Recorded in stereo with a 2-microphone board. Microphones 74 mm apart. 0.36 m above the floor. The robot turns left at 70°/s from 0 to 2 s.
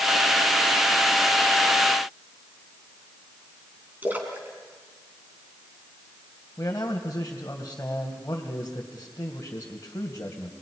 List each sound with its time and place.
4.0 s a splash: 25° right (ahead or behind), 3 m
6.6 s a man speaking: 35° left (ahead or behind), 2 m